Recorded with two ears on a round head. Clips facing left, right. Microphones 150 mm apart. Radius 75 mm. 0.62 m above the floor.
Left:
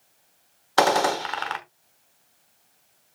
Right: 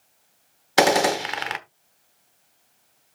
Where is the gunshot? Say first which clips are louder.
Right 2 dB; 20° right (ahead or behind), 1.0 m.